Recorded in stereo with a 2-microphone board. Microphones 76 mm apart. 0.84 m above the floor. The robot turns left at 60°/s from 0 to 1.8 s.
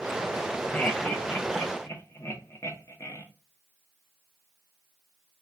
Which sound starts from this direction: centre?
Laughter, at 0.7 s.